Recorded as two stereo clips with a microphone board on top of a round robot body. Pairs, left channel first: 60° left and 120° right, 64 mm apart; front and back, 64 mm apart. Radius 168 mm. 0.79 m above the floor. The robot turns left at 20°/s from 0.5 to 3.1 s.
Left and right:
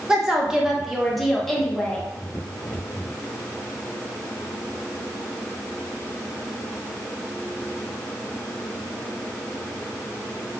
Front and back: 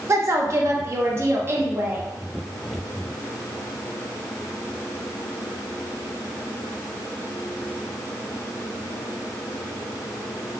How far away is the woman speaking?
About 0.9 m.